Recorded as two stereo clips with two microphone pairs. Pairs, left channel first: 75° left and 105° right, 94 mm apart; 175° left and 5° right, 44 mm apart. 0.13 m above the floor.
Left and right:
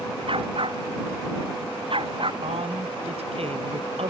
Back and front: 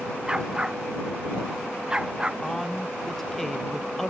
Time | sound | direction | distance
0.3 | a dog barking | 75° right | ?
2.4 | a man speaking | 100° right | ?